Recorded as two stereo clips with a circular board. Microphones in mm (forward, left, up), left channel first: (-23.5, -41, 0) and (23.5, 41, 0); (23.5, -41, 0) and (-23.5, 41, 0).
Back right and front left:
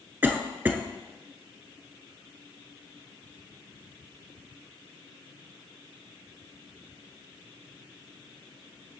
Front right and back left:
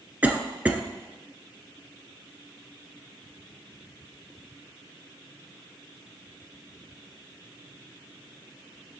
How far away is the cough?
About 1.1 m.